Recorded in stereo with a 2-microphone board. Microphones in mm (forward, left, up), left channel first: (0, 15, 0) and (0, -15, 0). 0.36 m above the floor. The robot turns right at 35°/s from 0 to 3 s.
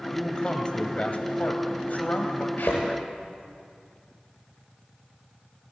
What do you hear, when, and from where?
0.1 s a man speaking: 20° left, 1.4 m; by 2.5 s 100° left, 1.4 m
2.6 s a thud: 85° left, 6.5 m; by 2.8 s 80° left, 6.5 m